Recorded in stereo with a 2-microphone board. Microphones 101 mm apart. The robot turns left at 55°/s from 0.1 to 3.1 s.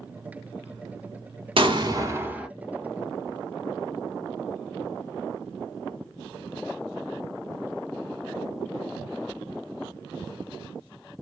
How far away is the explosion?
About 0.7 m.